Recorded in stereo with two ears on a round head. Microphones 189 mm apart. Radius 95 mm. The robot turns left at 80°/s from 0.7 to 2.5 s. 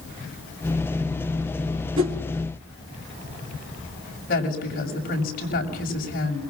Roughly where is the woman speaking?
Left.